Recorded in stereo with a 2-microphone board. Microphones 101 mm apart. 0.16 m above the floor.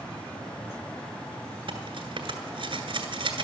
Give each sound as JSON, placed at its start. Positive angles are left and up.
{"t": 1.7, "sound": "cutlery clinking", "side_deg": -60, "distance_m": 1.2}